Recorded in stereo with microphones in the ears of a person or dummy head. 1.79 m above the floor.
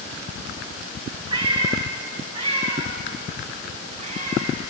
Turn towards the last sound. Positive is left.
turn(degrees=-45)  # may be behind; listen again after turning